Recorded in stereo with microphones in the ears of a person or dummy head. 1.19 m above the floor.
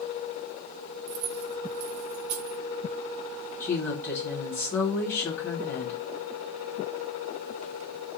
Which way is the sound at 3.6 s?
15° left (ahead or behind).